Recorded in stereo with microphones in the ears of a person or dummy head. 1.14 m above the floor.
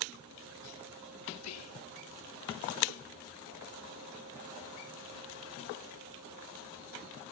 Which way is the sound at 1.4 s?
80° left.